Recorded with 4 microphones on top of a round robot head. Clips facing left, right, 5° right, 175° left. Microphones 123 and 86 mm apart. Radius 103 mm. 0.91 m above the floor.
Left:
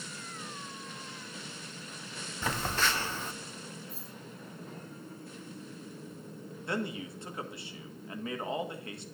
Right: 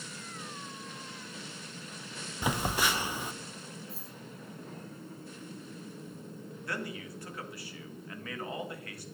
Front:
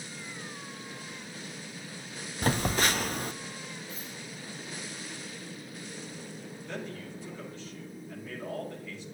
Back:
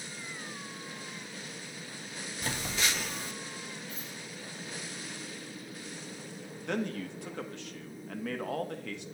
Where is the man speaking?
155° left, 1.5 m.